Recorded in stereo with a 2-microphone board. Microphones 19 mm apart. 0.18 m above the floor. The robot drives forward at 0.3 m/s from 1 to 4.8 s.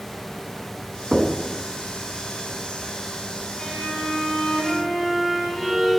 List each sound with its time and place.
1.1 s knocking: 30° right (ahead or behind), 0.8 m
3.6 s a violin: 40° left (ahead or behind), 2.5 m; by 6.0 s 35° left (ahead or behind), 2.5 m